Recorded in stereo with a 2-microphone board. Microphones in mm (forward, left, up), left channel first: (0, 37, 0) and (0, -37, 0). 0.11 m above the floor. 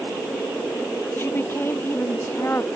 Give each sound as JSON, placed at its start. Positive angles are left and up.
{"t": 1.2, "sound": "a woman speaking", "side_deg": 30}